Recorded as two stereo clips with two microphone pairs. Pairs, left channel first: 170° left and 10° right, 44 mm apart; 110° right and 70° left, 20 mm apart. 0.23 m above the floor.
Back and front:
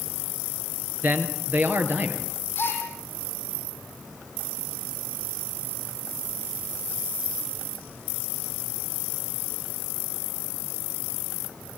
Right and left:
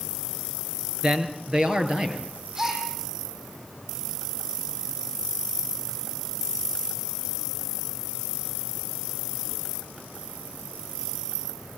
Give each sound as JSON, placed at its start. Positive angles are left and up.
{"t": 1.0, "sound": "a man speaking", "azimuth_deg": 25, "distance_m": 3.5}
{"t": 2.5, "sound": "a gasp", "azimuth_deg": 125, "distance_m": 9.0}